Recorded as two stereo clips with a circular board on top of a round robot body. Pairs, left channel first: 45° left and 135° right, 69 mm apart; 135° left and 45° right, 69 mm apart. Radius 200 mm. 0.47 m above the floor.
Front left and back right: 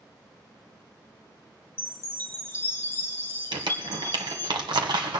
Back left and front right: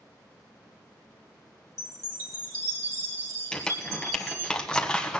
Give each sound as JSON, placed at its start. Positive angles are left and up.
{"t": 1.8, "sound": "a chime", "azimuth_deg": -10, "distance_m": 1.8}
{"t": 3.5, "sound": "crumpling", "azimuth_deg": -145, "distance_m": 1.7}